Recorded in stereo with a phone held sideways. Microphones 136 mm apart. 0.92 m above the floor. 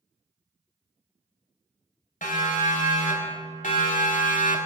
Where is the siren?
80° left, 4 m; by 4.6 s 70° left (ahead or behind), 1.5 m.